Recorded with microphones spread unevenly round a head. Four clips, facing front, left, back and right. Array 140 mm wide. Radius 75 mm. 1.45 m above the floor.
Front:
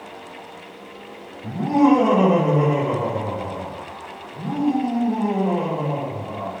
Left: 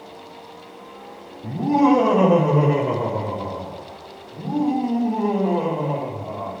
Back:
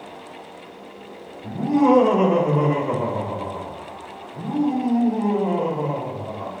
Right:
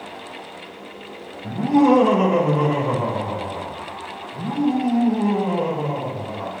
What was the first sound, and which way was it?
Laughter, 90° left.